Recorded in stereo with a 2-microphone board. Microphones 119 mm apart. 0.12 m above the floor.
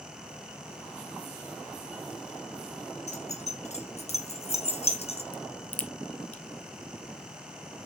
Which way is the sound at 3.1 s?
70° left (ahead or behind).